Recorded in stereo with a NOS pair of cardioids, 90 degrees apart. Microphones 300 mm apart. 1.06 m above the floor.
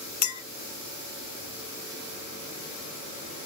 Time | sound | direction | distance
0.2 | a clink | 65° left | 0.7 m